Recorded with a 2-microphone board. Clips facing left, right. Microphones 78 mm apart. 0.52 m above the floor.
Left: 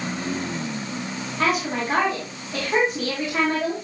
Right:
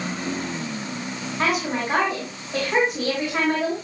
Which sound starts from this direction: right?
A woman speaking, at 1.4 s.